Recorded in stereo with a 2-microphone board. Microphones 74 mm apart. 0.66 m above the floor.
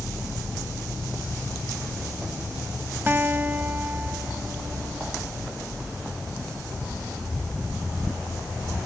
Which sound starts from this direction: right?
A guitar, at 3.1 s.